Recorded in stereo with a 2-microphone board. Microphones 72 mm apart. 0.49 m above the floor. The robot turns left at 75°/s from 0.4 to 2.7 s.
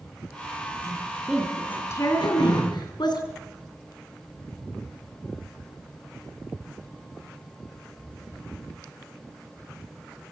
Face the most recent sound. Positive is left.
turn(degrees=60)